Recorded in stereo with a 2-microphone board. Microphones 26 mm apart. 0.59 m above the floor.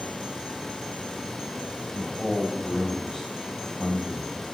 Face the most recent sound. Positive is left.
turn(degrees=0)  # may be behind; listen again after turning